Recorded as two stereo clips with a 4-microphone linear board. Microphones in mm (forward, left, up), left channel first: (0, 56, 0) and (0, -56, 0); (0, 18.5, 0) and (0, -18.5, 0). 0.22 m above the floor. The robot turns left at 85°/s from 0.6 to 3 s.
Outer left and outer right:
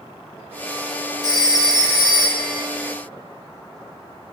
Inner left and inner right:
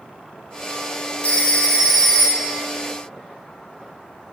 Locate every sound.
1.2 s a phone ringing: 105° left, 1.1 m; by 2.6 s 10° right, 1.1 m